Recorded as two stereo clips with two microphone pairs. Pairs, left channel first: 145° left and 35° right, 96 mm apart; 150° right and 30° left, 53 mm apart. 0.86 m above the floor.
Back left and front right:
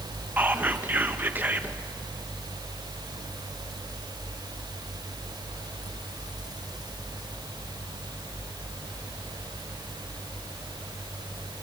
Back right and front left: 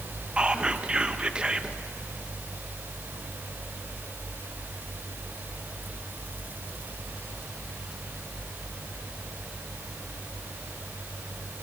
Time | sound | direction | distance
0.4 | whispering | straight ahead | 0.7 m